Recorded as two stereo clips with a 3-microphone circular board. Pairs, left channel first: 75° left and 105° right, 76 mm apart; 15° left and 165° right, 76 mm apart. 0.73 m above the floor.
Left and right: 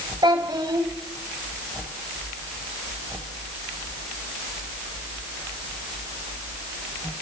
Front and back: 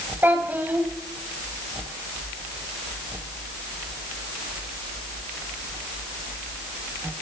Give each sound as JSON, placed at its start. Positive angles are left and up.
{"t": 0.2, "sound": "a child speaking", "azimuth_deg": -100, "distance_m": 2.5}